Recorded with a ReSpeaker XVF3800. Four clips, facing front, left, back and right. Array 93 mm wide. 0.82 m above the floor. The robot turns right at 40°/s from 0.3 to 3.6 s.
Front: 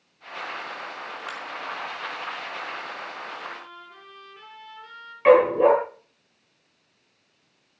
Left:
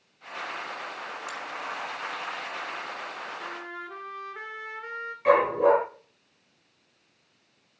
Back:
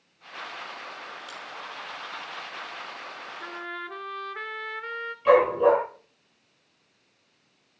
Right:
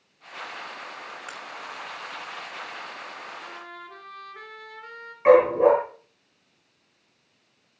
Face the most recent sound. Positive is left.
turn(degrees=-25)